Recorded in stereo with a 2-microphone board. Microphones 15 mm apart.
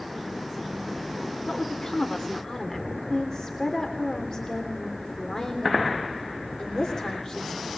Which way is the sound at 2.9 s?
50° left (ahead or behind).